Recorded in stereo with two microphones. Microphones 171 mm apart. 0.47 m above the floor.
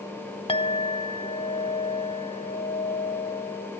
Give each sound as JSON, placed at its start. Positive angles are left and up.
{"t": 0.5, "sound": "a clink", "side_deg": 30, "distance_m": 0.6}